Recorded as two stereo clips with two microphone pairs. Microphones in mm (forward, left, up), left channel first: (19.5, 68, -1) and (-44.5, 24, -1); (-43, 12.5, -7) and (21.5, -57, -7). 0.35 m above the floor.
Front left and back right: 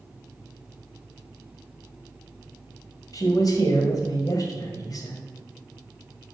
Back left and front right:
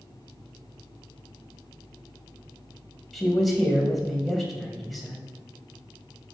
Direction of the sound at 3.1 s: 40° left.